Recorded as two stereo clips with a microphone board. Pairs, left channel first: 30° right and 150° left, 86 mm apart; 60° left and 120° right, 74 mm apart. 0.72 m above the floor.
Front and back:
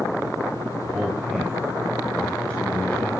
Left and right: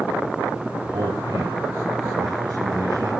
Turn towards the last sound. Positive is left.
turn(degrees=-95)